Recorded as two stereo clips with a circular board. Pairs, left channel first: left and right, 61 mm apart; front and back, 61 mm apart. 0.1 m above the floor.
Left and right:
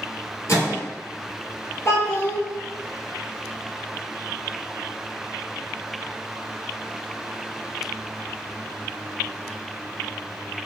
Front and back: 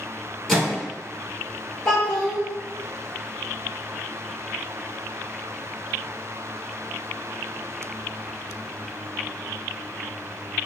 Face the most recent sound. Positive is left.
turn(degrees=90)